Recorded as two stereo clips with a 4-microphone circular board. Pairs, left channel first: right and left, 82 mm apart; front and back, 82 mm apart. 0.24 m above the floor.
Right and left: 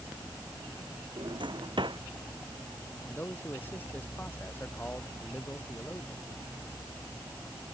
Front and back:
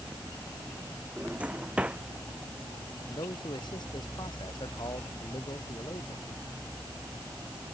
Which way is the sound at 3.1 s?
20° right.